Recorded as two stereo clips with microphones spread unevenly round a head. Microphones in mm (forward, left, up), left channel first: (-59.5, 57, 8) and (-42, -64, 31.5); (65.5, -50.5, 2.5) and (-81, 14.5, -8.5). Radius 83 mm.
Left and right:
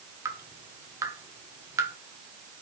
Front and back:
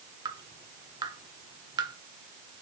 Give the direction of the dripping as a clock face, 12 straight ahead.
5 o'clock.